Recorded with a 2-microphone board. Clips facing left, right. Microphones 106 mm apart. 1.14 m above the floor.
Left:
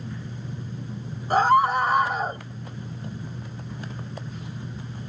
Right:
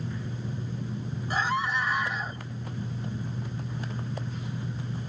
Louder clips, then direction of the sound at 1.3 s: Left 10 dB; 50° left (ahead or behind).